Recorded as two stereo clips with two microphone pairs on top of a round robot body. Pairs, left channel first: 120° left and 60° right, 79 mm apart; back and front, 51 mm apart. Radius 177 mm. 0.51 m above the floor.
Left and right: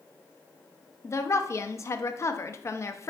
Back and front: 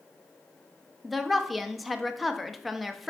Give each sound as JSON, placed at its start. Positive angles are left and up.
{"t": 1.0, "sound": "a woman speaking", "azimuth_deg": 110, "distance_m": 0.7}